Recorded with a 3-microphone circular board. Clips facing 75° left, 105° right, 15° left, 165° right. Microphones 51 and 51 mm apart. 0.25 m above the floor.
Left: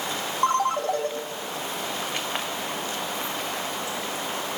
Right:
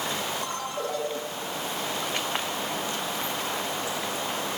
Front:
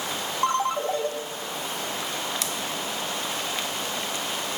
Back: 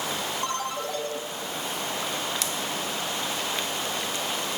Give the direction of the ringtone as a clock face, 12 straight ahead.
10 o'clock.